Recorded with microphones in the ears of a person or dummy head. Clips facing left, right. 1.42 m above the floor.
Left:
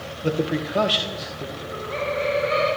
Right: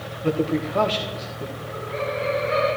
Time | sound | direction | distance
0.2 | a man speaking | 10° left (ahead or behind) | 1.4 m
1.6 | laughter | 45° left (ahead or behind) | 4.5 m